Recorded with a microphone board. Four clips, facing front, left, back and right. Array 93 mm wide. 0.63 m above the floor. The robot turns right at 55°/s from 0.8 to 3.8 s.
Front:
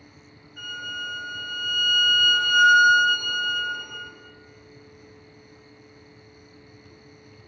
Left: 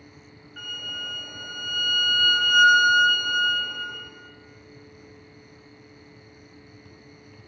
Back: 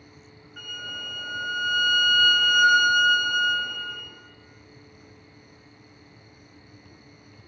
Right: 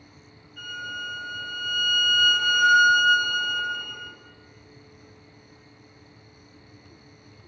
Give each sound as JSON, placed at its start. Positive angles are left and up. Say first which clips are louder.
{"t": 0.6, "sound": "a violin", "louder": "right 3 dB, front 4 dB", "azimuth_deg": 120, "distance_m": 1.4}